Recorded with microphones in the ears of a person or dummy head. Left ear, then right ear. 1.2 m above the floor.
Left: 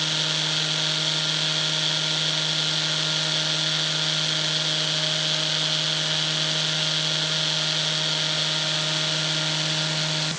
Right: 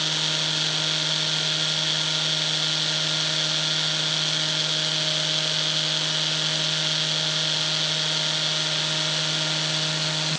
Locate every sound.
Only background noise.